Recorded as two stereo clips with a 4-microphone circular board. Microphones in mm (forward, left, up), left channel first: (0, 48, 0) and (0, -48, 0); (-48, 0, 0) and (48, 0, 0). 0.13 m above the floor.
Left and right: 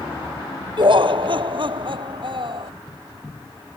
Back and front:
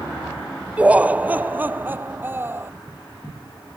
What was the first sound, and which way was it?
Laughter, 75° right.